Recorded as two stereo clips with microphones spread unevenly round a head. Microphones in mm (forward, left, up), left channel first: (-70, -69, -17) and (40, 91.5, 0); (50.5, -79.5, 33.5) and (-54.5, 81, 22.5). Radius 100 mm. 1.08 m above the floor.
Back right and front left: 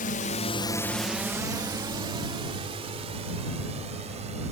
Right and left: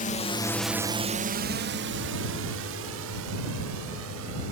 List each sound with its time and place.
0.0 s a drone: 95° right; by 4.5 s 115° left